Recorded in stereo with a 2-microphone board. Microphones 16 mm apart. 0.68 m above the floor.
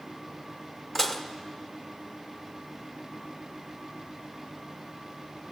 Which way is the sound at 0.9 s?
20° left (ahead or behind).